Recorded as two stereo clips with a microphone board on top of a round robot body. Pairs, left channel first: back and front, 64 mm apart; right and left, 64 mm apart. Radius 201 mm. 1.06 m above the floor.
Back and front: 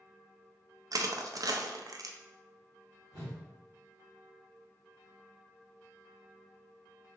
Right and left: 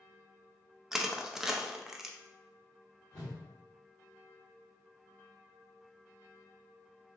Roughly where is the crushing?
Ahead.